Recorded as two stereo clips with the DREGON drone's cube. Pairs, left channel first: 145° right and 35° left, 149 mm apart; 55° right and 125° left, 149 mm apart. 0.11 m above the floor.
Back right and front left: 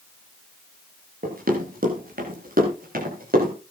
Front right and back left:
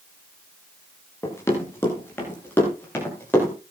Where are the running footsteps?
15° left, 8 m; by 3.5 s 20° left, 11.5 m.